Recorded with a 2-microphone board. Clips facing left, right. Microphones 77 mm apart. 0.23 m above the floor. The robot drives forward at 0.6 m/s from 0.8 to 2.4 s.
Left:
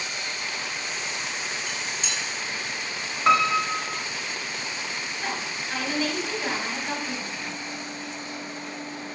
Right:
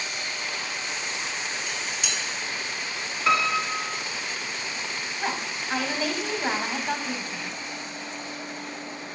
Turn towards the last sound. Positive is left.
turn(degrees=-20)  # may be behind; listen again after turning